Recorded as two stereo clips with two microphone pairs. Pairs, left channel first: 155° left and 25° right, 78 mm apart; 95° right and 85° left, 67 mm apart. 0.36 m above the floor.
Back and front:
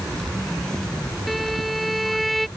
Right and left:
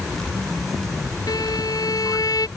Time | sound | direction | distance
1.3 | a violin | 115° right | ?